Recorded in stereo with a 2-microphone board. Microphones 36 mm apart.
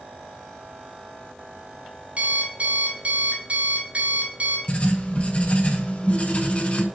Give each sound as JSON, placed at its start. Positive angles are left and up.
{"t": 2.2, "sound": "an alarm clock", "side_deg": -40, "distance_m": 2.0}
{"t": 4.7, "sound": "writing", "side_deg": 30, "distance_m": 1.1}